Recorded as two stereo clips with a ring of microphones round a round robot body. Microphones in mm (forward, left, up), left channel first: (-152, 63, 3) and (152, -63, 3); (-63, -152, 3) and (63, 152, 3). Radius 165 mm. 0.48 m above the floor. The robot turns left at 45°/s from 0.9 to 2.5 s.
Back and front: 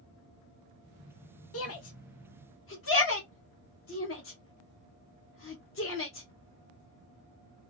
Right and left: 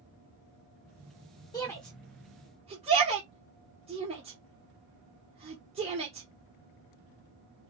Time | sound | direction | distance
1.5 | a shout | 175° left | 0.9 m